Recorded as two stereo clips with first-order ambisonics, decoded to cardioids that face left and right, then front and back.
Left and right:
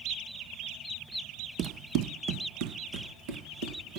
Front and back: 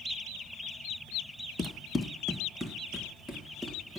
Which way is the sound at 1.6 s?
65° right.